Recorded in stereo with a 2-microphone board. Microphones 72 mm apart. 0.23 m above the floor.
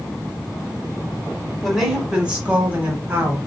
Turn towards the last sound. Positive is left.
turn(degrees=-30)  # may be behind; listen again after turning